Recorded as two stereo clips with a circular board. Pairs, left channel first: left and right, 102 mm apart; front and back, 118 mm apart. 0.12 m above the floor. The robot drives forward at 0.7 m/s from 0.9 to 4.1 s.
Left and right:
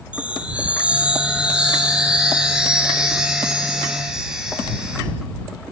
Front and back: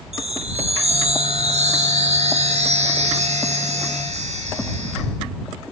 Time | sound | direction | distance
0.1 | a chime | 170° right | 2 m